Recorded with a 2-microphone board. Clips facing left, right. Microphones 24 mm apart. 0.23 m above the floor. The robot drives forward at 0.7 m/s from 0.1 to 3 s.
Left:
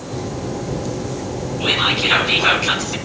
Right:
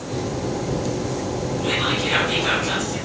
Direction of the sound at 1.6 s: 50° left (ahead or behind).